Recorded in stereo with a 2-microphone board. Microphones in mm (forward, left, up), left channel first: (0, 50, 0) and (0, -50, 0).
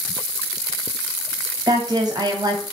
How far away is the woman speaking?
About 1.1 m.